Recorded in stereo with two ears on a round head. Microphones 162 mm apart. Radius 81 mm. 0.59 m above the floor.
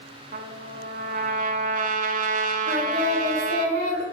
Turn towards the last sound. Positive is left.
turn(degrees=-60)  # may be behind; listen again after turning